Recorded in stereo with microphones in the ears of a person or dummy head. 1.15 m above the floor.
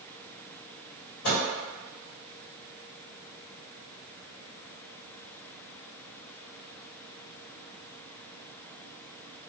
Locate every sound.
1.2 s a microwave: 50° left (ahead or behind), 1.3 m